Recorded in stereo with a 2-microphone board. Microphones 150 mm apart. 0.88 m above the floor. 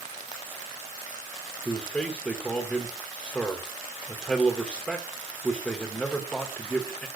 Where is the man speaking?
5° left (ahead or behind), 1.2 m.